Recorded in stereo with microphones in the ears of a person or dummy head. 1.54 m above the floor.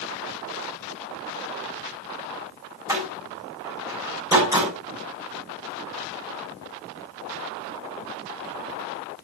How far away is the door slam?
About 7.5 m.